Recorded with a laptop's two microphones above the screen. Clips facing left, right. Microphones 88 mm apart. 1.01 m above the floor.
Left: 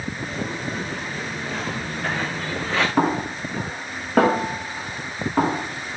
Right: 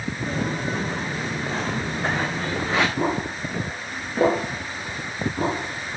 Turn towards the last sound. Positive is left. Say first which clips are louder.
# left 3 dB
turn(degrees=80)